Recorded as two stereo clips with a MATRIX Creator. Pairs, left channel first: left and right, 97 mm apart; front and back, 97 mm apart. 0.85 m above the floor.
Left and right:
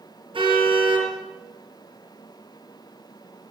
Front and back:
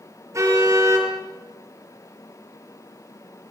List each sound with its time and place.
0.3 s a car horn: 120° right, 7 m